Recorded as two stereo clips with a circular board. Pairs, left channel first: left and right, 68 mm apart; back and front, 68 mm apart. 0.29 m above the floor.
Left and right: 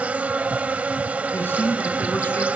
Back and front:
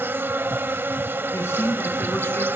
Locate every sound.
0.0 s an insect: 35° right, 0.7 m
1.3 s a man speaking: 135° left, 3 m